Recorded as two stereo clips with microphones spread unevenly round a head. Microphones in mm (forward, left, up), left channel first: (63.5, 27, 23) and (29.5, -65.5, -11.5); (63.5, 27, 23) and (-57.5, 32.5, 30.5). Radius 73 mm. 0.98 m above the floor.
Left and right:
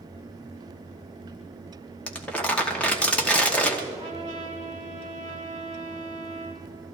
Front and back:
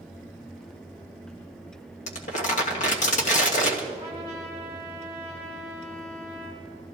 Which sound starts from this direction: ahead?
Crumpling, at 2.1 s.